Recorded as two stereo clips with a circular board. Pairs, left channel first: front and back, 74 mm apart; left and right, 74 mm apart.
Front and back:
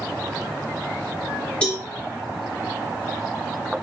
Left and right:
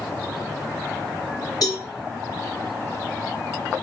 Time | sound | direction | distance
1.6 | a cowbell | 75° left | 2 m